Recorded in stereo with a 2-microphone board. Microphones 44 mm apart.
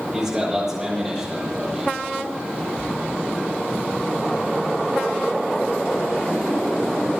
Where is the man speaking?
10° right (ahead or behind), 5.5 m.